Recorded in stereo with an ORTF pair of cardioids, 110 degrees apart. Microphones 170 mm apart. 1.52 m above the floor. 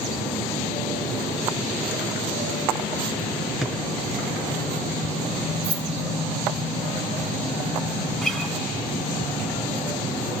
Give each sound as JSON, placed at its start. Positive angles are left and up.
{"t": 3.6, "sound": "a drawer", "azimuth_deg": 0, "distance_m": 5.0}
{"t": 5.6, "sound": "keys jangling", "azimuth_deg": -20, "distance_m": 1.8}
{"t": 8.2, "sound": "a guitar", "azimuth_deg": 5, "distance_m": 8.5}